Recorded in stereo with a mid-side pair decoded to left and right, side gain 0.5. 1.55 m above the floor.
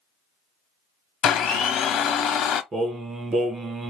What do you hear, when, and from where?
1.2 s a blender: 65° left, 0.8 m
2.7 s singing: 40° right, 1.1 m